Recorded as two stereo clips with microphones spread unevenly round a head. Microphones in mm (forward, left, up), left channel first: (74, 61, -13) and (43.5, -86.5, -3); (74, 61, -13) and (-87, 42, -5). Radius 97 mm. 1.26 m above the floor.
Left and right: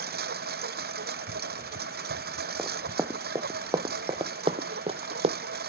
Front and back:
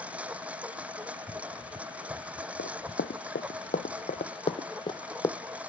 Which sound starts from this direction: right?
A lawn mower, at 0.0 s.